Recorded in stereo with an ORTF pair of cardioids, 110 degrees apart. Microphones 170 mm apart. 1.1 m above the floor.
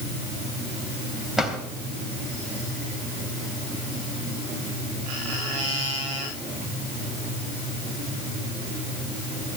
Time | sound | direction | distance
1.4 | a drawer | 5° right | 3.5 m